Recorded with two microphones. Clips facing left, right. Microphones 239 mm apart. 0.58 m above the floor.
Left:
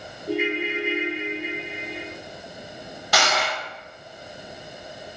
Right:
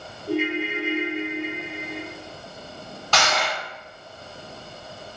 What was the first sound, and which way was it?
A ringtone, 10° left (ahead or behind).